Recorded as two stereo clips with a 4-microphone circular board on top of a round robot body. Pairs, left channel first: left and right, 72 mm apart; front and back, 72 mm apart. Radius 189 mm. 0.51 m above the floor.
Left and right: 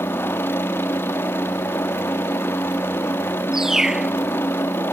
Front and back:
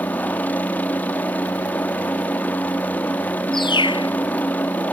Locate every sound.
0.0 s a helicopter: 55° left
3.5 s a bird: 5° right